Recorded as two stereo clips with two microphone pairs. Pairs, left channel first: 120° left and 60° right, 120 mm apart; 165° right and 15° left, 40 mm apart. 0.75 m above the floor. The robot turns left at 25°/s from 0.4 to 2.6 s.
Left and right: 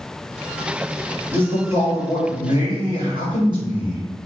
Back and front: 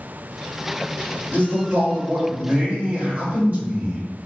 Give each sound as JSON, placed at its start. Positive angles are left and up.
{"t": 1.3, "sound": "a man speaking", "azimuth_deg": 10, "distance_m": 1.9}